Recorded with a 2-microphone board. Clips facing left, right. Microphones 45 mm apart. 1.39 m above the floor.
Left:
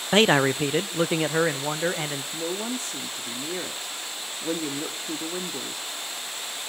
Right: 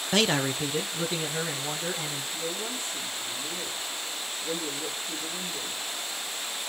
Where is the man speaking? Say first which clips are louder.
Left 6 dB; 25° left (ahead or behind), 0.5 m; by 2.2 s 55° left (ahead or behind), 1.9 m.